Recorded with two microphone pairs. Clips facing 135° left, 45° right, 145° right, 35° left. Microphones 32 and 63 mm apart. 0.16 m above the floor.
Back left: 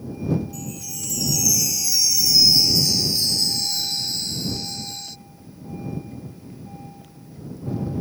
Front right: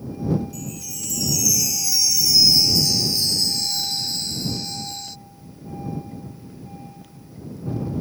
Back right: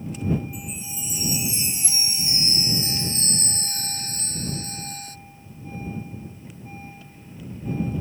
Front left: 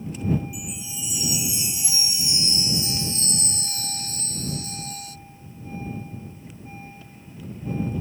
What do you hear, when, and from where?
0.5 s a chime: 140° right